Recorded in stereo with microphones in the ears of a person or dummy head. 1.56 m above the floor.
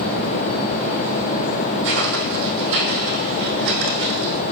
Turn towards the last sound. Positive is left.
turn(degrees=-30)  # may be behind; listen again after turning